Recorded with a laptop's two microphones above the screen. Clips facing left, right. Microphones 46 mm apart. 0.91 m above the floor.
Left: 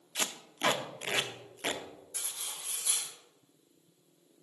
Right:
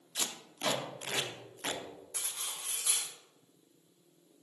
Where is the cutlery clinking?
75° right (ahead or behind), 1.7 m.